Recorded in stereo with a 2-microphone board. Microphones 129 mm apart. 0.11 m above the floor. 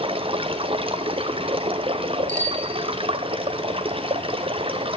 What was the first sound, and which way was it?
Running water, 45° right (ahead or behind).